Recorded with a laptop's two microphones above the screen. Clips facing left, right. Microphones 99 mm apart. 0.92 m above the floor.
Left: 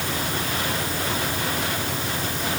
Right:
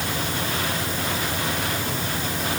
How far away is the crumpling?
No crumpling in this recording.